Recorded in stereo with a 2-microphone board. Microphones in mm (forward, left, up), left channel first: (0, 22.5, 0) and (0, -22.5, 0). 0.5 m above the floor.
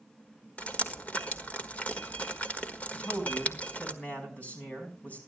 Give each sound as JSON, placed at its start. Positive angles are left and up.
{"t": 0.6, "sound": "dripping", "side_deg": 30, "distance_m": 1.5}
{"t": 2.9, "sound": "a man speaking", "side_deg": 35, "distance_m": 5.0}